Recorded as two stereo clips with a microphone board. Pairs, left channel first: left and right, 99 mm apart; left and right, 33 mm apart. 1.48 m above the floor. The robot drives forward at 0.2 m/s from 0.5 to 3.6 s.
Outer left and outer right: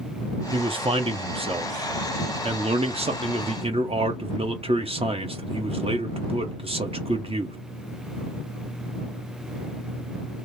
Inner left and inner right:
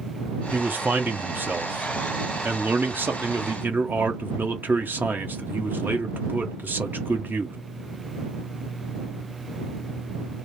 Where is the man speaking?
65° right (ahead or behind), 0.9 m; by 7.6 s 75° right (ahead or behind), 0.9 m.